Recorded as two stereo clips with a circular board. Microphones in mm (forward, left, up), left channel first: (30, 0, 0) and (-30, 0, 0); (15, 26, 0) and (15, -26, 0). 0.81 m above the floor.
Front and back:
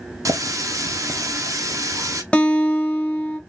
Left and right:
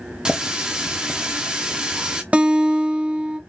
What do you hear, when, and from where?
0.2 s a running tap: 160° right, 0.6 m
2.3 s a guitar: 50° right, 0.6 m